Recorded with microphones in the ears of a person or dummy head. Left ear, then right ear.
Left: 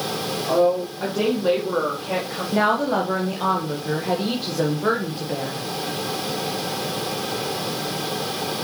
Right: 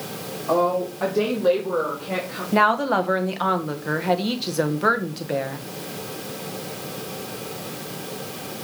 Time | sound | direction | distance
0.5 | a woman speaking | 25° right (ahead or behind) | 2.5 m
2.5 | a woman speaking | 50° right (ahead or behind) | 1.2 m